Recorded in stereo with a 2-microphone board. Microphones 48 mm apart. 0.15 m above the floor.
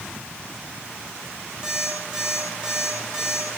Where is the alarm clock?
15° right (ahead or behind), 9 m.